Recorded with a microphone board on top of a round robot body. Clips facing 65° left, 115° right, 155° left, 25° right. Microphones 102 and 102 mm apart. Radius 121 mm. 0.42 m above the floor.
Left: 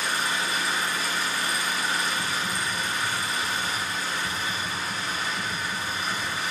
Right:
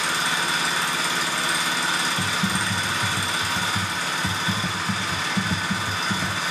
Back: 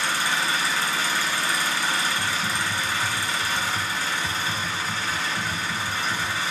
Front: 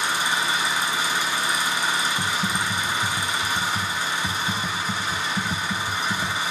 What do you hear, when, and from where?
0.0 s an engine running: 95° right, 2.5 m
2.2 s typing on a keyboard: 85° right, 0.5 m